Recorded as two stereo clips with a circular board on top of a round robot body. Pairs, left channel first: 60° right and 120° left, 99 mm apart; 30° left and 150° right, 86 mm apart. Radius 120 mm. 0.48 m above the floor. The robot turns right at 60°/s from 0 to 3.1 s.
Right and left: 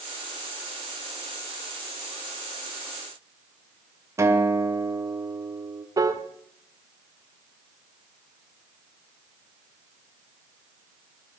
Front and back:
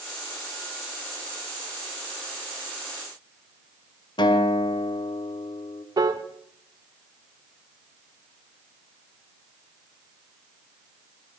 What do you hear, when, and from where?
4.2 s a guitar: 60° left, 2 m
6.0 s a piano: 170° left, 1.2 m